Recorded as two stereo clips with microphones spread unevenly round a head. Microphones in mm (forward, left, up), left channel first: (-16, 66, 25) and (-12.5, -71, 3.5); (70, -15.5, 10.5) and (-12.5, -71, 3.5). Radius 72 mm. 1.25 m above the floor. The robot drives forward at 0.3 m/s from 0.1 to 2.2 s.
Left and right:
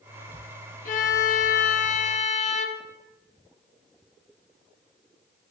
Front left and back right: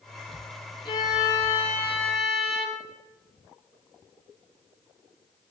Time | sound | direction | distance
0.8 | a violin | 85° left | 0.7 m